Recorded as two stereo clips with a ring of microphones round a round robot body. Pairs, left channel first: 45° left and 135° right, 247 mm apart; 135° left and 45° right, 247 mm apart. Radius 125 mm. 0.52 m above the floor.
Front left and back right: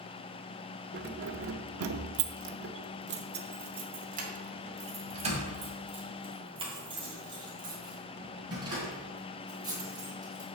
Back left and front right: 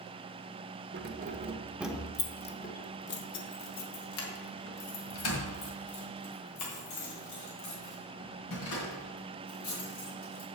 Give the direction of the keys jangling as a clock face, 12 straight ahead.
3 o'clock.